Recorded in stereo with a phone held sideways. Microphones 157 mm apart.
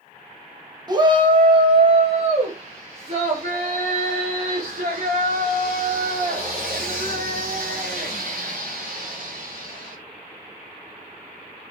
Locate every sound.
0.9 s a shout: 25° right (ahead or behind), 1.6 m; by 9.9 s 60° right (ahead or behind), 6.5 m